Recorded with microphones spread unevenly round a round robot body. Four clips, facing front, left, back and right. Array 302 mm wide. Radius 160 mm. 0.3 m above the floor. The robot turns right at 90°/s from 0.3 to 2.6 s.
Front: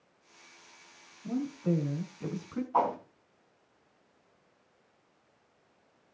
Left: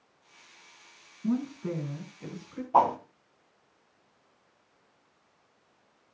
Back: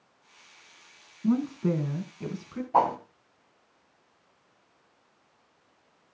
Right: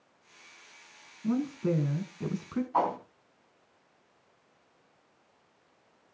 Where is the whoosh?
130° left, 2.5 m.